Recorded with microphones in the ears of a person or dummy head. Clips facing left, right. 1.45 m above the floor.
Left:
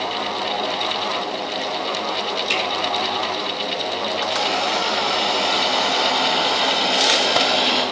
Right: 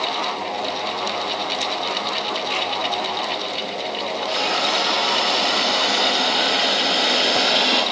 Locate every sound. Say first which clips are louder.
2.5 s a finger snap: left 2 dB; 70° left (ahead or behind), 2 m
4.3 s a hiss: right 1 dB; 25° right (ahead or behind), 2 m